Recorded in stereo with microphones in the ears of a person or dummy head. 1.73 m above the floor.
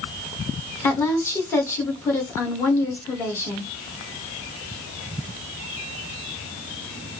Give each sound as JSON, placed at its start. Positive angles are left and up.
{"t": 0.8, "sound": "a woman speaking", "side_deg": 15, "distance_m": 1.3}